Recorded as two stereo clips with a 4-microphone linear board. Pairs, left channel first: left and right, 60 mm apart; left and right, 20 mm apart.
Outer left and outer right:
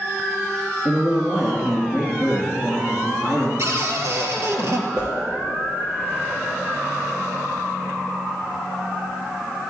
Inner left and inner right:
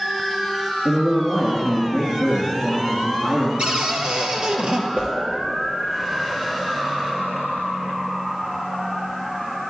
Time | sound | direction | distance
0.8 | a man speaking | 15° right (ahead or behind) | 2 m
3.6 | a cupboard door | 50° right (ahead or behind) | 1.6 m
5.0 | a whoosh | 75° right (ahead or behind) | 4 m